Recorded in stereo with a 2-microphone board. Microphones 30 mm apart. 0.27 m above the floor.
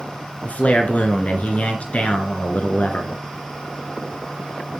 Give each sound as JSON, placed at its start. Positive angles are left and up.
{"t": 0.4, "sound": "a man speaking", "side_deg": 50, "distance_m": 3.0}